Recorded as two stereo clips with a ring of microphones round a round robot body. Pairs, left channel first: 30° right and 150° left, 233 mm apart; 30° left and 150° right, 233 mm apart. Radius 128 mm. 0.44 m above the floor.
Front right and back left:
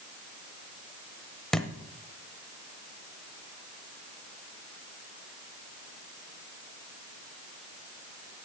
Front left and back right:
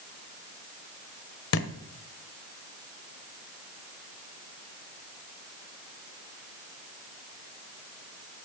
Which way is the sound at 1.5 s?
55° left.